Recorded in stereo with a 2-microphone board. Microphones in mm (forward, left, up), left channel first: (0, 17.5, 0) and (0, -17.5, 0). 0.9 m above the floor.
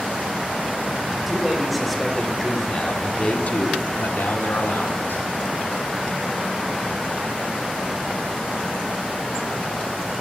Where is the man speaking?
10° right (ahead or behind), 3.5 m; by 5.2 s 80° left, 2.5 m.